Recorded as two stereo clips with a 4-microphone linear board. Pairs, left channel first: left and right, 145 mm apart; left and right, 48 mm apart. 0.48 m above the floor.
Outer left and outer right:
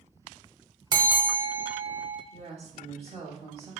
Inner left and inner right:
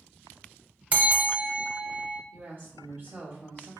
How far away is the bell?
About 0.7 m.